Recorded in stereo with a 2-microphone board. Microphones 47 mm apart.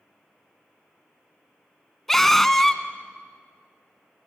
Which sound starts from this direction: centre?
A scream, at 2.1 s.